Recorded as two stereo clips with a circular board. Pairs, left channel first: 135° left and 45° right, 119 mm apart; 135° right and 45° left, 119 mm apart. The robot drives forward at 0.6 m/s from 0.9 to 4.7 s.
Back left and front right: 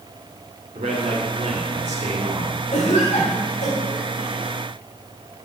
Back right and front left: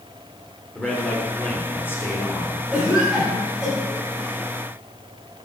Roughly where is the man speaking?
Ahead right.